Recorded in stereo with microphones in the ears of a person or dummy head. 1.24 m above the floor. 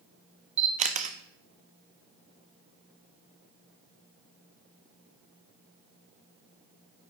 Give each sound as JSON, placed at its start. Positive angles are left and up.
{"t": 0.6, "sound": "a camera shutter", "side_deg": -35, "distance_m": 0.5}